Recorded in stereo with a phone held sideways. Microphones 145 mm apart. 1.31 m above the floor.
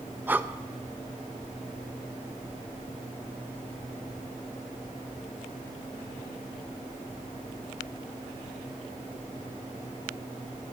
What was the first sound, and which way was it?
Breathing, 15° right (ahead or behind).